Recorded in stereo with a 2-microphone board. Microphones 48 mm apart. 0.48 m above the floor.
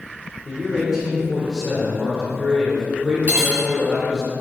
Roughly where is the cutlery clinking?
Right.